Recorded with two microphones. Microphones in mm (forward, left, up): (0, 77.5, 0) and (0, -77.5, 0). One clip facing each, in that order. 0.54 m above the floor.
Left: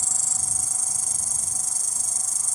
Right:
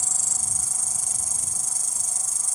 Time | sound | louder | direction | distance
0.0 | an insect | even | 40° left (ahead or behind) | ?